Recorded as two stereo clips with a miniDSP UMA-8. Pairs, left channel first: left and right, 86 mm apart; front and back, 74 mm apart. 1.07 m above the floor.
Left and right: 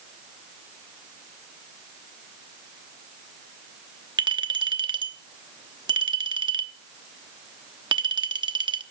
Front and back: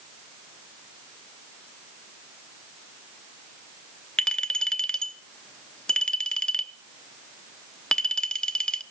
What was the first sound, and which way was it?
A clink, 75° right.